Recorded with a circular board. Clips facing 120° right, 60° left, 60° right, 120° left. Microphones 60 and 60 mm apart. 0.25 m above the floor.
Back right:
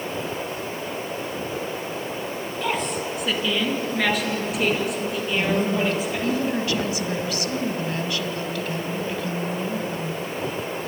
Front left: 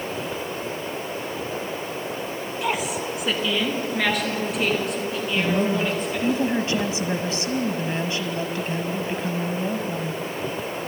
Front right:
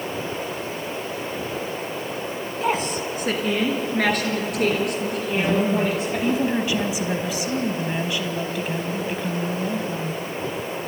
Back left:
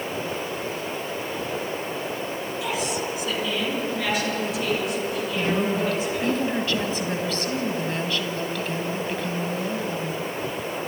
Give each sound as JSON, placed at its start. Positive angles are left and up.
{"t": 2.6, "sound": "a woman speaking", "azimuth_deg": -20, "distance_m": 2.5}
{"t": 5.3, "sound": "a woman speaking", "azimuth_deg": 10, "distance_m": 1.8}